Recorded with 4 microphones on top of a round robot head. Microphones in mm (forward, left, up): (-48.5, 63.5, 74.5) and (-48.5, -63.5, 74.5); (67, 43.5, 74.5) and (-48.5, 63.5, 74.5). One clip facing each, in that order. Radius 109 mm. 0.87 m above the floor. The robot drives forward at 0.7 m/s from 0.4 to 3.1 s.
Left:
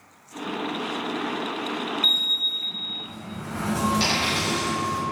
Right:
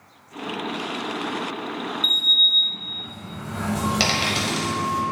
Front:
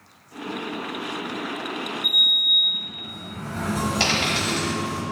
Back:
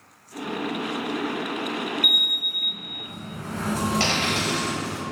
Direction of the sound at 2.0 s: 165° left.